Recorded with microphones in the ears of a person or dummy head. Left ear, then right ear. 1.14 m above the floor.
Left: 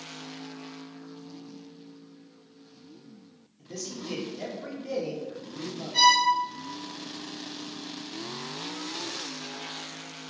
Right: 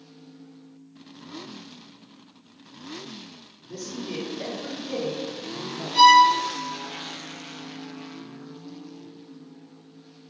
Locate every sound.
3.6 s a man speaking: 55° left (ahead or behind), 0.9 m; by 6.0 s 30° right (ahead or behind), 0.8 m
5.9 s a violin: 50° left (ahead or behind), 1.8 m